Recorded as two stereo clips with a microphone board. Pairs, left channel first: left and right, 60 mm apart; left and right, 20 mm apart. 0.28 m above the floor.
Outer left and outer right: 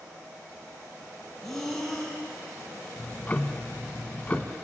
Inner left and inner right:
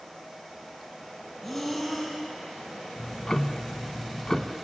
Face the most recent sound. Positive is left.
turn(degrees=25)  # may be behind; listen again after turning